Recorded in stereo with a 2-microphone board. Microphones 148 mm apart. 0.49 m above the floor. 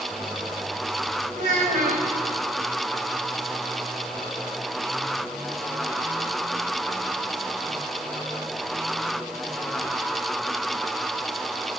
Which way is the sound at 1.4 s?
75° right (ahead or behind).